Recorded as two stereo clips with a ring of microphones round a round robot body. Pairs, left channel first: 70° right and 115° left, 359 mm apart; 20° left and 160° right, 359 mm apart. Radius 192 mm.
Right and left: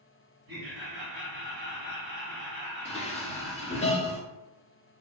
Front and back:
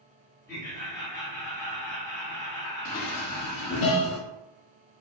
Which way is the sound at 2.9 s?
5° right.